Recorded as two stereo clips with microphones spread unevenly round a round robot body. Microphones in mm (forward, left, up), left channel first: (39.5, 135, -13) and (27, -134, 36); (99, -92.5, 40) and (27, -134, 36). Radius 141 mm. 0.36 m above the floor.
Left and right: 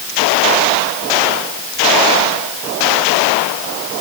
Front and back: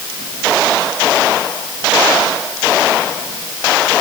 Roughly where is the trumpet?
I don't hear a trumpet.